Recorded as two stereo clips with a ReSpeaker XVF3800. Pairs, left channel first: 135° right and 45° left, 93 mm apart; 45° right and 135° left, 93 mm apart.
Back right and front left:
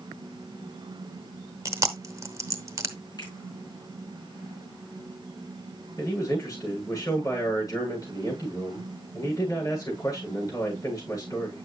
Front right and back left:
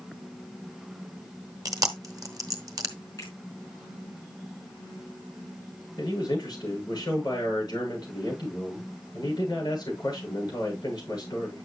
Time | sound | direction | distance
1.6 | chewing | 95° left | 0.9 m
3.2 | a finger snap | 95° right | 4.5 m
6.0 | a man speaking | 85° right | 8.5 m